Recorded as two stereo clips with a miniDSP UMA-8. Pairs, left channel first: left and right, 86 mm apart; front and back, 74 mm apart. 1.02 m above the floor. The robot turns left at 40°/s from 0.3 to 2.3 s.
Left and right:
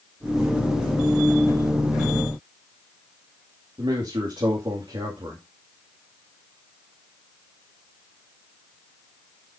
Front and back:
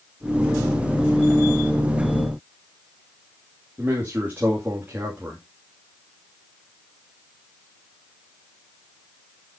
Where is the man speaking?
115° right, 2.5 m.